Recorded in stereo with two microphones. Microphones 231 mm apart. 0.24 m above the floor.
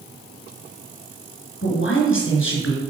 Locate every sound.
1.6 s a man speaking: 60° left (ahead or behind), 2.5 m